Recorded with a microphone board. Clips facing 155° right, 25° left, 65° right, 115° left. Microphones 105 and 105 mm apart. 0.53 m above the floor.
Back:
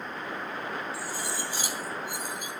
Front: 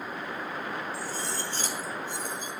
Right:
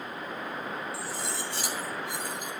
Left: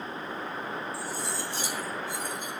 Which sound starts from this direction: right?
Cutlery clinking, at 0.9 s.